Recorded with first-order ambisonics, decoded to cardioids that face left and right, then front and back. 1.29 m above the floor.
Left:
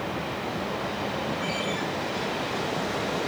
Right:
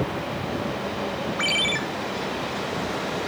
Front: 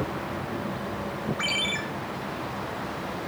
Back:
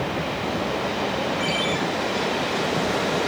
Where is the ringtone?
85° right, 1.2 m.